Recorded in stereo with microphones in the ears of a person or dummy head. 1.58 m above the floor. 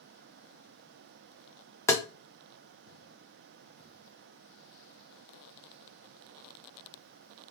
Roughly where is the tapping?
Centre.